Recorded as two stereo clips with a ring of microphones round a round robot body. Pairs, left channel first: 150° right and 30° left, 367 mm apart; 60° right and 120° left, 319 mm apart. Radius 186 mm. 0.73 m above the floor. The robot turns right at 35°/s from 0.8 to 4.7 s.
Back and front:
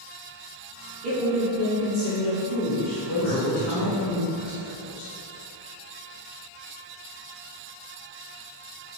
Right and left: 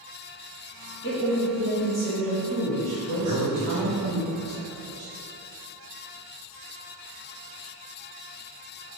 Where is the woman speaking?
20° right, 1.6 m; by 4.2 s 90° left, 1.6 m.